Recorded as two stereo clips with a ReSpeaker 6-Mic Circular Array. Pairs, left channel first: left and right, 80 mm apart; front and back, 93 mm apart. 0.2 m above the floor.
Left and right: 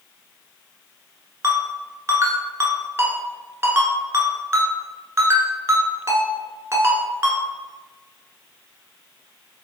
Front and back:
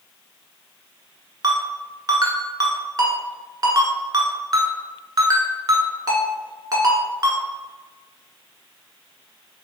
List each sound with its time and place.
1.4 s a ringtone: 140° right, 0.9 m